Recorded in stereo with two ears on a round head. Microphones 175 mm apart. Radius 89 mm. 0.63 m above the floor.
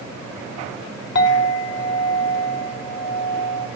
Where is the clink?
55° left (ahead or behind), 0.8 m.